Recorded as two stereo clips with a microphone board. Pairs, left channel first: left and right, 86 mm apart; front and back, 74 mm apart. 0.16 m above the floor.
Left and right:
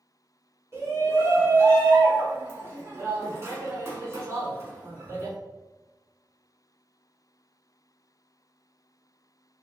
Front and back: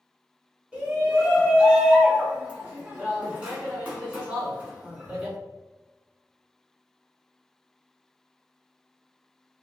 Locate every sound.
0.7 s a shout: 115° right, 1.3 m